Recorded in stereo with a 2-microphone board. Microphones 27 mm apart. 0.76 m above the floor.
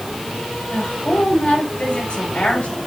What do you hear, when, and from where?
0.7 s a woman speaking: 70° left (ahead or behind), 4 m